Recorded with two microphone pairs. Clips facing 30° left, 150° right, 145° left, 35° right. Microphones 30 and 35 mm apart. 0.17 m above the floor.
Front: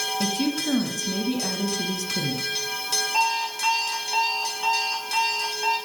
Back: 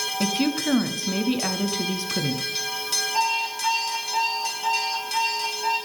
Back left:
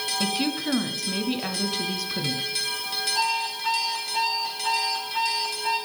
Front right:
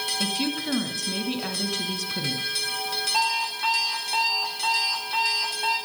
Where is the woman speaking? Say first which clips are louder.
Back 4 dB, back left 3 dB; 135° right, 1.2 m.